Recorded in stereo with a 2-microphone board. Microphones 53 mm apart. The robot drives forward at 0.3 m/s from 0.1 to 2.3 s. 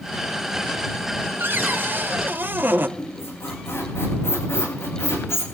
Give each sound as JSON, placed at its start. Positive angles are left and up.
{"t": 1.4, "sound": "a cupboard door", "side_deg": -40, "distance_m": 0.8}
{"t": 3.0, "sound": "a squeak", "side_deg": 55, "distance_m": 9.0}